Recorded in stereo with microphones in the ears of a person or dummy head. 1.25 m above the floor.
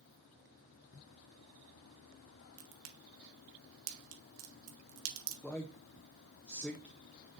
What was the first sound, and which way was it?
A crack, 75° right (ahead or behind).